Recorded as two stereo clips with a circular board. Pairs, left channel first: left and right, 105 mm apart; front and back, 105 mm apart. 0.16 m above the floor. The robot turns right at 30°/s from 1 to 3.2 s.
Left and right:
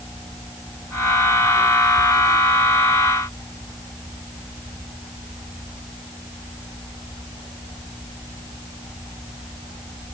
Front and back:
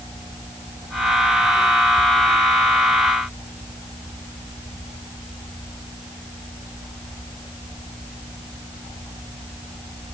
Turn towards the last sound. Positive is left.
No sound to turn to.